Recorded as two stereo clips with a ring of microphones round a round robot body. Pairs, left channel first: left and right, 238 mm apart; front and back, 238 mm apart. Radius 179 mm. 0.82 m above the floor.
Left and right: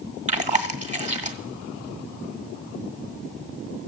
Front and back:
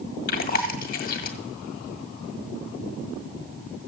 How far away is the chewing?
About 1.4 m.